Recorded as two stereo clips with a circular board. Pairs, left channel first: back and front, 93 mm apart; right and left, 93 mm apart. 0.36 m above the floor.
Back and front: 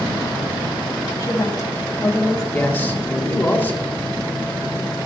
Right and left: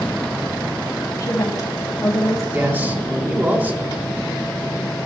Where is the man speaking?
135° left, 1.6 m.